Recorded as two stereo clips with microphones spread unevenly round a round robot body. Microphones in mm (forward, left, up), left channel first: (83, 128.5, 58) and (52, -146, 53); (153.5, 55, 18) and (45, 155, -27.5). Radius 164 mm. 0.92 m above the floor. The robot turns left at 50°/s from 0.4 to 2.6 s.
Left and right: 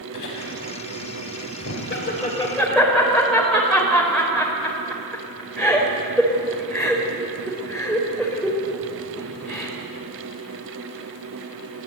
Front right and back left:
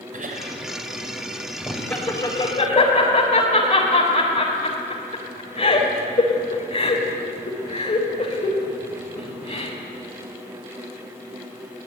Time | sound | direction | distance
0.1 | laughter | 105° left | 4.5 m